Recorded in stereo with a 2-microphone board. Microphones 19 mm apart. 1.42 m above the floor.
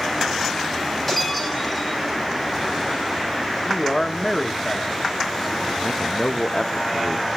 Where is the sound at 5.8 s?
45° left (ahead or behind), 0.7 m.